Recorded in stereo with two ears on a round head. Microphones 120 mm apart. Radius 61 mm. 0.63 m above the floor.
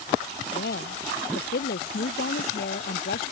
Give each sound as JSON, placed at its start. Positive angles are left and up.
{"t": 0.5, "sound": "a woman speaking", "side_deg": 85}